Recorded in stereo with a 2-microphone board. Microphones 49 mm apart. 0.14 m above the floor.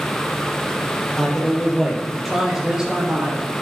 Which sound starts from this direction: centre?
A man speaking, at 1.2 s.